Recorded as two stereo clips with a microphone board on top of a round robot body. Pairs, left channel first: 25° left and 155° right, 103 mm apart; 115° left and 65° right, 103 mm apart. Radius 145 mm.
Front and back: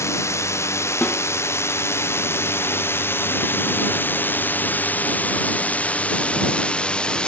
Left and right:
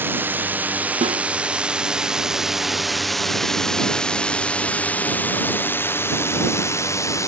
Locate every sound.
0.0 s a drone: 15° right; by 7.3 s 95° left
1.0 s a snare drum: 55° right